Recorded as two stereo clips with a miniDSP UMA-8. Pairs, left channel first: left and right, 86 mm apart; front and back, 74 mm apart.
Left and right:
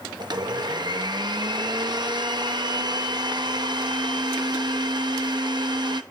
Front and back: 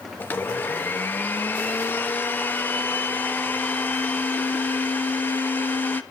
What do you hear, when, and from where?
0.2 s a blender: 60° right, 0.7 m